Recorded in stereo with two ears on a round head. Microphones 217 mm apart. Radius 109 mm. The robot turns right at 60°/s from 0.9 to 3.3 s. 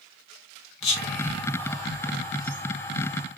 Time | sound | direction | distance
0.8 | whispering | 50° left (ahead or behind) | 0.9 m